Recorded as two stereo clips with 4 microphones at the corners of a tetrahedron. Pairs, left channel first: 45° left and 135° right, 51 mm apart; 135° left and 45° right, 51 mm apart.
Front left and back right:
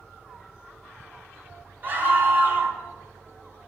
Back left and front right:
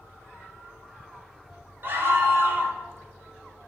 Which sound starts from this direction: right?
A scream, at 1.8 s.